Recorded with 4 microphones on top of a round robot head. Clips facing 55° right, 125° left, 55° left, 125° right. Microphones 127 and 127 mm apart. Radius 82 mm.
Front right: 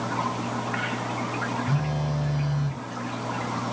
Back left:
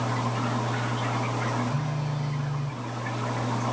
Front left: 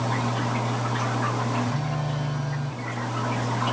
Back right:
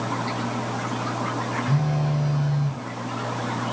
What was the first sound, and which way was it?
A phone buzzing, 55° right.